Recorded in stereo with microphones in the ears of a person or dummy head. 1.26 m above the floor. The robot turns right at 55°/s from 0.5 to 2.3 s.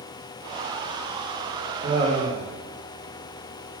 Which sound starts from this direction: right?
Laughter, at 1.8 s.